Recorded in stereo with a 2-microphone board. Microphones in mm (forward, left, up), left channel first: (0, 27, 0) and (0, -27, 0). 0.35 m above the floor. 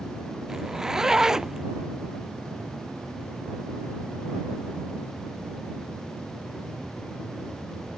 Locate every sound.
0.5 s a zipper: 10° right (ahead or behind)